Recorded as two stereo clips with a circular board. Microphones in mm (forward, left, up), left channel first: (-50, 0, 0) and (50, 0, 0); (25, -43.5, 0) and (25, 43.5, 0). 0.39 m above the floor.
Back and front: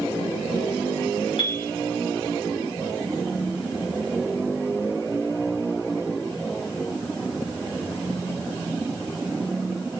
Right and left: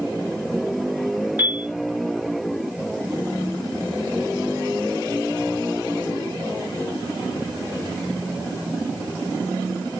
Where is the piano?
155° left, 2.5 m.